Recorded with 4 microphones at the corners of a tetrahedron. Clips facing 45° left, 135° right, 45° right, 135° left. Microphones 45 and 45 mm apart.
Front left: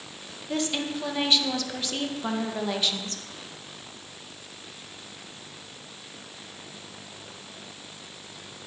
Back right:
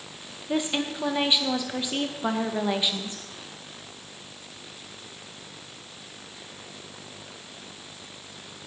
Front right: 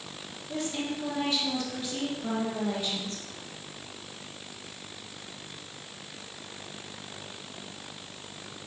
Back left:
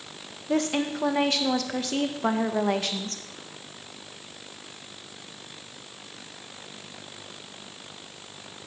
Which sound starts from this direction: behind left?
A woman speaking, at 0.5 s.